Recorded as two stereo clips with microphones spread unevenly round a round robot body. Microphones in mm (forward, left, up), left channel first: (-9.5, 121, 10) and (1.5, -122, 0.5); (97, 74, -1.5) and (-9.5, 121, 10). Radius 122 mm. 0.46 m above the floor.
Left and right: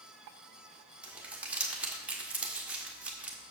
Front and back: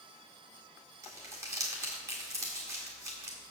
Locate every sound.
1.0 s crumpling: 160° right, 1.4 m